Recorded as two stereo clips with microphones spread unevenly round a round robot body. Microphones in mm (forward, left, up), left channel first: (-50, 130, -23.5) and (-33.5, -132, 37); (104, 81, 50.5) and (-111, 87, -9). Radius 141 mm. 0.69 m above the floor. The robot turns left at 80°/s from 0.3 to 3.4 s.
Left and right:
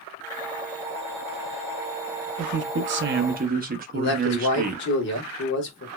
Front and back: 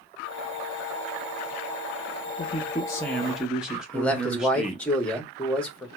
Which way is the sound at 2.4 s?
55° right.